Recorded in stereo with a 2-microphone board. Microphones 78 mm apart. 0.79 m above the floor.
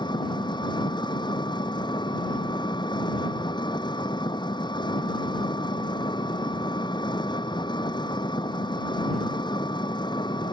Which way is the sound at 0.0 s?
85° left.